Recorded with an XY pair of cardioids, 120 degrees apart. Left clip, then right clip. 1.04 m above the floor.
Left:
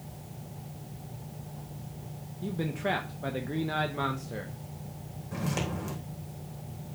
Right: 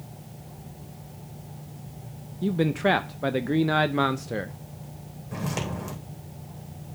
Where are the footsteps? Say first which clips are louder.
Right 2 dB; 15° right, 3.5 m.